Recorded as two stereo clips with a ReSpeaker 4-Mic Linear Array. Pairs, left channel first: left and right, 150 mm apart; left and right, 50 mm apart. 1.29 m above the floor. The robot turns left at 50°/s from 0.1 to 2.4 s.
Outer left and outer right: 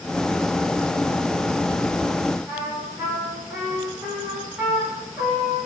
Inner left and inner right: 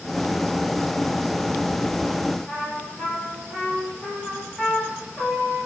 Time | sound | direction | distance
2.5 | a trumpet | 15° right (ahead or behind) | 5.5 m